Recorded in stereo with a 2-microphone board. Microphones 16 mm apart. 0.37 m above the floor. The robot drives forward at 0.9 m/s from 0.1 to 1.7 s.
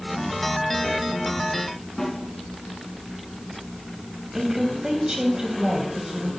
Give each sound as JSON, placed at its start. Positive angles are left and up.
{"t": 2.0, "sound": "a snare drum", "side_deg": 40, "distance_m": 3.5}
{"t": 4.3, "sound": "a woman speaking", "side_deg": -55, "distance_m": 2.0}